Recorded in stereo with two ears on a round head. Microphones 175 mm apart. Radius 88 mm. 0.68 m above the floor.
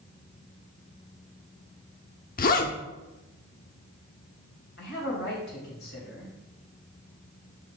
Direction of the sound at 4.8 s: 55° left (ahead or behind).